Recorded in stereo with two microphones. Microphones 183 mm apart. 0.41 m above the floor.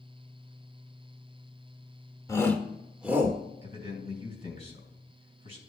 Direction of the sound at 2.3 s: 15° left (ahead or behind).